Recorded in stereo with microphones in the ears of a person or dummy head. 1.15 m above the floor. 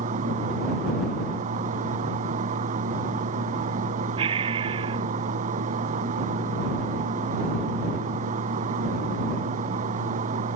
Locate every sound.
0.0 s a fan: 45° right (ahead or behind)
4.2 s breathing: 25° right (ahead or behind)